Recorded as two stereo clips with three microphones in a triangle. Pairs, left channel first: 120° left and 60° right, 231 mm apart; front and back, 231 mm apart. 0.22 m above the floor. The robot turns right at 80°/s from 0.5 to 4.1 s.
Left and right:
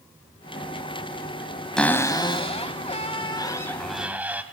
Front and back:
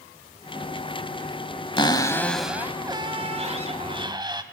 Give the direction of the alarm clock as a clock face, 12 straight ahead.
I don't hear an alarm clock.